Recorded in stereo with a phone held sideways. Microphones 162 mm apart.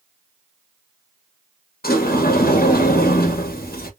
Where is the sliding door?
70° left (ahead or behind), 0.9 m.